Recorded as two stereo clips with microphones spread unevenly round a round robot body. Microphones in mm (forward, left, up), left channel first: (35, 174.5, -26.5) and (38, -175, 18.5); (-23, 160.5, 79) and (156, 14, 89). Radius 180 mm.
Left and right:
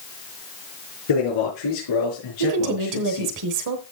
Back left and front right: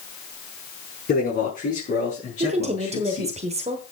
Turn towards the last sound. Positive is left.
turn(degrees=-90)